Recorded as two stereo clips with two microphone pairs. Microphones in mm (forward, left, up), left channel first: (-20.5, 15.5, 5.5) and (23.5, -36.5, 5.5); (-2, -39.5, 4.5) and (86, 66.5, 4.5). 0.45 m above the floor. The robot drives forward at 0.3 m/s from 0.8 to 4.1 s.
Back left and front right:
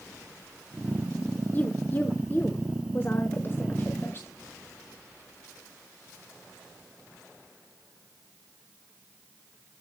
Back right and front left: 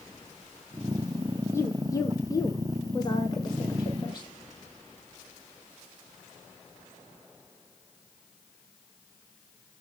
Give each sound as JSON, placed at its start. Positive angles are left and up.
{"t": 1.5, "sound": "a woman speaking", "azimuth_deg": 170, "distance_m": 0.8}